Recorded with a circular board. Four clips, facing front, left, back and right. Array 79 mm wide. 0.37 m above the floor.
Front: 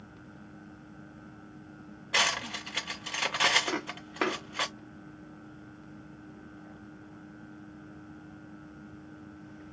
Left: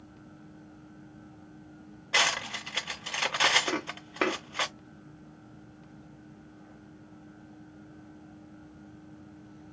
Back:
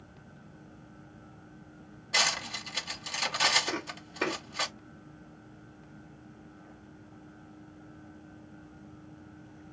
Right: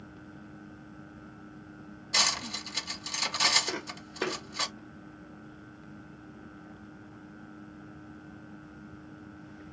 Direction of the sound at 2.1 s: 65° left.